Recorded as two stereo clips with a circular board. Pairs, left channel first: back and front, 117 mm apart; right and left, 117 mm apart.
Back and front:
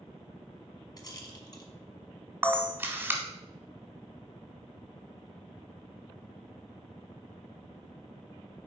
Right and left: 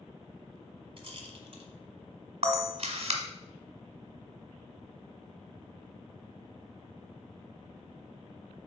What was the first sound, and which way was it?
A rattle, 125° left.